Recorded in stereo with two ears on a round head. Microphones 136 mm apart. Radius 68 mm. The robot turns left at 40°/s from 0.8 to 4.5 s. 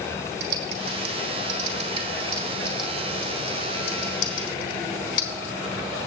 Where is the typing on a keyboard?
75° right (ahead or behind), 1.5 m; by 5.3 s 60° left (ahead or behind), 1.5 m.